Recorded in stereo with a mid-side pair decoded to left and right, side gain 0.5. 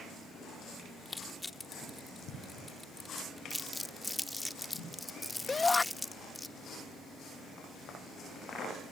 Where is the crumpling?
10° left.